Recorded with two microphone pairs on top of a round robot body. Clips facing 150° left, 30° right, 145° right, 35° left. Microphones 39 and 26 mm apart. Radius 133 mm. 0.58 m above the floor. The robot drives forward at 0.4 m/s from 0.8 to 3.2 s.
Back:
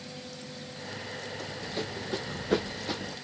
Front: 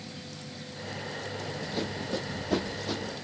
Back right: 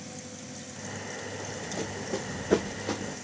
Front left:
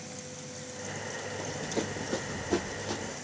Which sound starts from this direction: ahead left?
Running footsteps, at 1.4 s.